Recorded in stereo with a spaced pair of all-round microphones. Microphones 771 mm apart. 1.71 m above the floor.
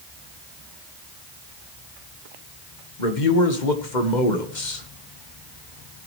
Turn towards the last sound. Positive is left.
turn(degrees=70)  # may be behind; listen again after turning